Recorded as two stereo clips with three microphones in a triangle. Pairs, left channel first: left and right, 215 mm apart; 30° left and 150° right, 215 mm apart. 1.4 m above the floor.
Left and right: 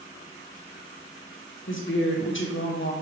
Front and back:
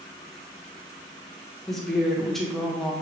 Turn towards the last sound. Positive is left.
turn(degrees=120)